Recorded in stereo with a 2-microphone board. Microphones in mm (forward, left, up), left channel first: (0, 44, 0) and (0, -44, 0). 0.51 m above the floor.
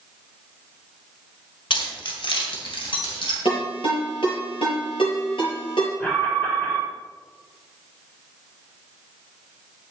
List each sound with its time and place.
1.7 s keys jangling: 70° left (ahead or behind), 1.4 m; by 3.4 s 75° left (ahead or behind), 3.5 m
3.5 s a ringtone: 80° left, 4.5 m
6.0 s an alarm: 15° left (ahead or behind), 3.5 m